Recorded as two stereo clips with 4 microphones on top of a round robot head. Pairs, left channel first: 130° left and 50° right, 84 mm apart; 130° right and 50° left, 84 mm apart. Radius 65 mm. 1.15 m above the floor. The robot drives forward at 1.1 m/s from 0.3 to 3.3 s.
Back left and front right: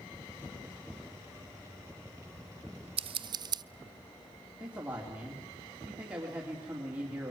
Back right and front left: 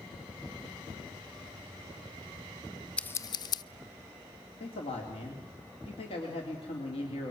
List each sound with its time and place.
3.0 s scissors: 50° right, 0.6 m; by 3.6 s 90° right, 0.5 m
4.6 s a man speaking: 125° right, 3 m